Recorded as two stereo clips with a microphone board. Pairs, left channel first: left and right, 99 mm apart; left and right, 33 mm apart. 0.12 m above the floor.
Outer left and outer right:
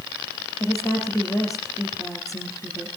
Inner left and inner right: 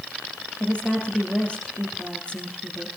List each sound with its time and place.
0.6 s a woman speaking: 35° left (ahead or behind), 3.5 m